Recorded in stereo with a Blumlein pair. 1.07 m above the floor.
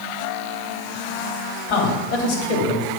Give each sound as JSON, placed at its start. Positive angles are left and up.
{"t": 1.7, "sound": "a man speaking", "azimuth_deg": 55, "distance_m": 3.5}